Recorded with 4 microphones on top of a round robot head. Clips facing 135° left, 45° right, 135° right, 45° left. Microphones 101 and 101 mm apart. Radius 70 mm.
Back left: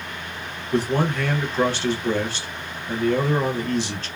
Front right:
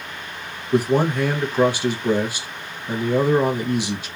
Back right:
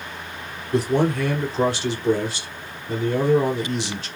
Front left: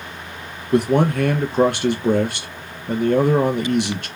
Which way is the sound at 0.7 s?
30° left.